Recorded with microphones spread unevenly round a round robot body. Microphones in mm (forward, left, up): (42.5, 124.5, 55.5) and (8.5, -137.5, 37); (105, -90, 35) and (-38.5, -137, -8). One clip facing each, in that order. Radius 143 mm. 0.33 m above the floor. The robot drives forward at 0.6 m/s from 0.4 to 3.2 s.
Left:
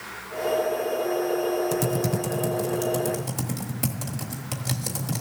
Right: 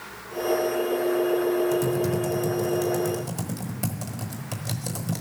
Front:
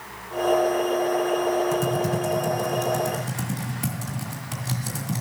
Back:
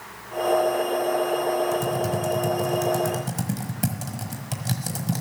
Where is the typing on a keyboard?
125° left, 0.7 m; by 5.2 s 170° left, 1.3 m.